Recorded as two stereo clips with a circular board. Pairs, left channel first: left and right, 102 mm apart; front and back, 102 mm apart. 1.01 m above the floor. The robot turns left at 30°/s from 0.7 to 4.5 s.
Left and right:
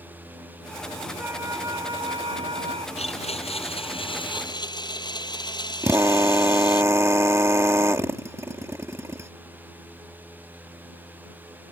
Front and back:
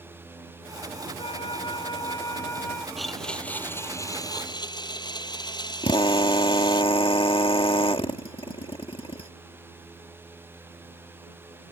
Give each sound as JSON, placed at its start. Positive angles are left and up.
{"t": 1.2, "sound": "a flute", "azimuth_deg": -20}
{"t": 3.0, "sound": "a blender", "azimuth_deg": 90}
{"t": 5.8, "sound": "a drill", "azimuth_deg": -30}